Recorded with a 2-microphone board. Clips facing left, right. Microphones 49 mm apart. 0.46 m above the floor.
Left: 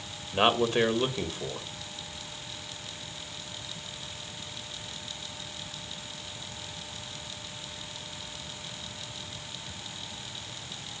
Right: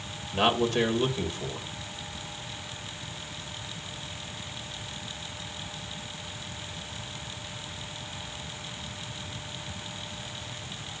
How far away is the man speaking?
About 1.8 m.